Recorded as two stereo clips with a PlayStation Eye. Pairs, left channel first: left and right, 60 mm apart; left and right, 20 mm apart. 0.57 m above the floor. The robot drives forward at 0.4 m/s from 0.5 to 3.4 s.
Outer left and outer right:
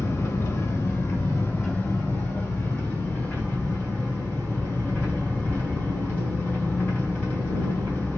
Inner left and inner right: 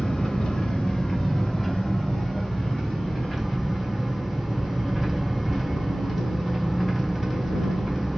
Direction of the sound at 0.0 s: 45° left (ahead or behind).